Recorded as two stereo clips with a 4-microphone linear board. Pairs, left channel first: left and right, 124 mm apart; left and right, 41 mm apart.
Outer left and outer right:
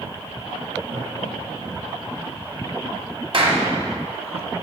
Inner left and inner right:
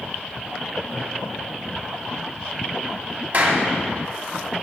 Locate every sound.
0.9 s laughter: 55° right (ahead or behind), 2.5 m; by 2.0 s 60° right (ahead or behind), 4 m
3.3 s a clap: 45° right (ahead or behind), 1.7 m